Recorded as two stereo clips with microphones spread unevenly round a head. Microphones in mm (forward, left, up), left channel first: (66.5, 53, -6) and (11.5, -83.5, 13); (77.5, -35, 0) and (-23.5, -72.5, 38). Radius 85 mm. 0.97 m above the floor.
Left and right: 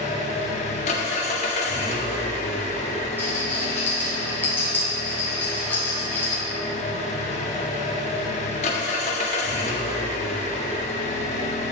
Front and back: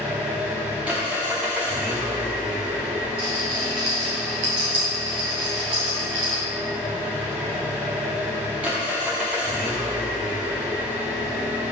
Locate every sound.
0.0 s an engine running: 125° left, 0.7 m
3.2 s a rattle: 150° left, 2 m